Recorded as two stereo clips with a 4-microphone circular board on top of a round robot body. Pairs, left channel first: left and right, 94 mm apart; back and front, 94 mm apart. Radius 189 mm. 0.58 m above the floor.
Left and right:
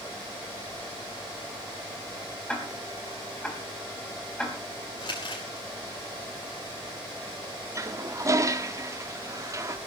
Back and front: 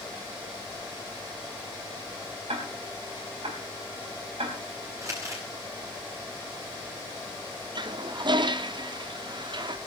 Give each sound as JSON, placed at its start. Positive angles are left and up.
{"t": 2.5, "sound": "ticking", "azimuth_deg": 5, "distance_m": 4.0}
{"t": 5.0, "sound": "crumpling", "azimuth_deg": 55, "distance_m": 6.0}
{"t": 7.8, "sound": "a toilet flushing", "azimuth_deg": -35, "distance_m": 1.1}